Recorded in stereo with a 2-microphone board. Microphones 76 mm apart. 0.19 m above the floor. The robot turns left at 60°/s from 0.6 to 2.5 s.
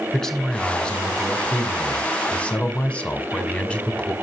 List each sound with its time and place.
0.1 s a man speaking: 5° left (ahead or behind), 1.2 m; by 4.1 s 15° left (ahead or behind), 1.2 m